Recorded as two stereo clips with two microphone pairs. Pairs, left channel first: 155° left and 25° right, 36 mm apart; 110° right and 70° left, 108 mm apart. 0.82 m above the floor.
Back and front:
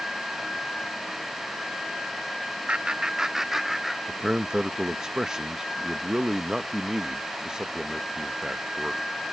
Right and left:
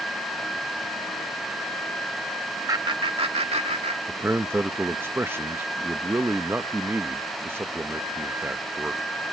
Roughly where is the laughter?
Ahead.